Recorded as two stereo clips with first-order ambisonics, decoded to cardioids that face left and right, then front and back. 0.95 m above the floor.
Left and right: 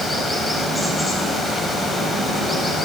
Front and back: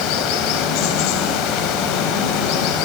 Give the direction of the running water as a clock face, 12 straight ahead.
12 o'clock.